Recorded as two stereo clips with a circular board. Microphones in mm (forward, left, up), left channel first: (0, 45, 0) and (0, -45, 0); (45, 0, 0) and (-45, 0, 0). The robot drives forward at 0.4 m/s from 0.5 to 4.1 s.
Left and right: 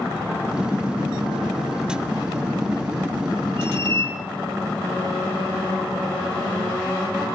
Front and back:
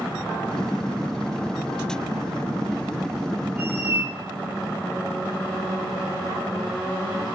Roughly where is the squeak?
Behind right.